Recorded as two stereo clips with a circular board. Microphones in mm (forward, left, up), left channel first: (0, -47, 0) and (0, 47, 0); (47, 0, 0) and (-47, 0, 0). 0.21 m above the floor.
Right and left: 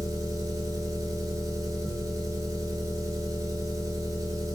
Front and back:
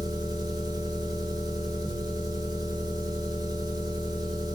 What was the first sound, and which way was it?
An engine running, 140° left.